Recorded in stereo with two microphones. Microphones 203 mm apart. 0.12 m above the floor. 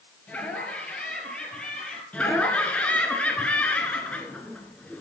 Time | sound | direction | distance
0.3 | laughter | 5° left (ahead or behind) | 2.5 m
2.1 | laughter | 5° left (ahead or behind) | 1.5 m